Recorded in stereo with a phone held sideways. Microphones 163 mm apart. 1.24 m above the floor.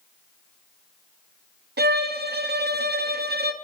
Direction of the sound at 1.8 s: 85° right.